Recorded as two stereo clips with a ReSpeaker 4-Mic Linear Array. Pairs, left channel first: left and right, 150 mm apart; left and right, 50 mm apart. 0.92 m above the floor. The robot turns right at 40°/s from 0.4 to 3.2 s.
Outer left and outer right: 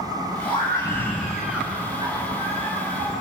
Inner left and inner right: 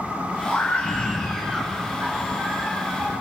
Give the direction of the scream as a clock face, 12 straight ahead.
7 o'clock.